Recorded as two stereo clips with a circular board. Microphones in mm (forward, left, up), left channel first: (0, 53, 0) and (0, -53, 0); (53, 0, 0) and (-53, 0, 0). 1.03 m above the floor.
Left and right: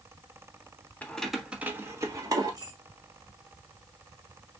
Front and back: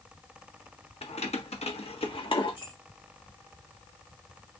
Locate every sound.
1.0 s keys jangling: 15° left, 0.9 m; by 2.7 s 40° right, 1.6 m